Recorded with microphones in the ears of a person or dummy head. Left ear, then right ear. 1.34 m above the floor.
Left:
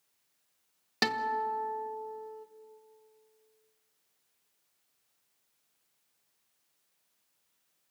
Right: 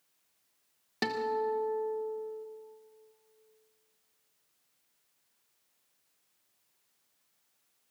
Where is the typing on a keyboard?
No typing on a keyboard in this recording.